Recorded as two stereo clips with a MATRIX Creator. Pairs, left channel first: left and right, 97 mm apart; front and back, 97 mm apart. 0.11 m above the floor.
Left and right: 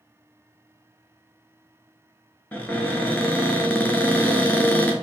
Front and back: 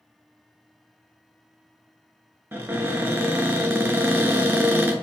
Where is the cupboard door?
140° left, 0.5 m.